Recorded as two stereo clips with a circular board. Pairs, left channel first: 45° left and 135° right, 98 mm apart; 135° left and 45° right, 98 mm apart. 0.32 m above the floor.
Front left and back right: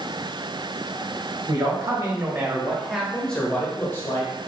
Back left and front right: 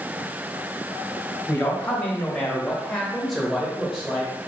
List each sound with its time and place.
1.5 s a man speaking: 155° right, 1.5 m; by 4.5 s 30° left, 1.4 m